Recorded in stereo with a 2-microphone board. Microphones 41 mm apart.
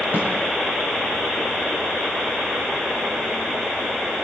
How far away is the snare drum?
About 7.5 m.